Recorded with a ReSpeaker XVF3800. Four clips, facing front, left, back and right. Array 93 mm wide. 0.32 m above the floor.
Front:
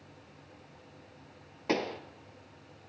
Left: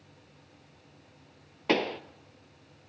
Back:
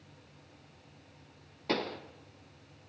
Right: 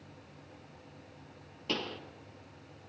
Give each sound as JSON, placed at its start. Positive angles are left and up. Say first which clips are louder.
{"t": 1.7, "sound": "a pop", "louder": "left 10 dB, front 2 dB", "azimuth_deg": 75, "distance_m": 1.0}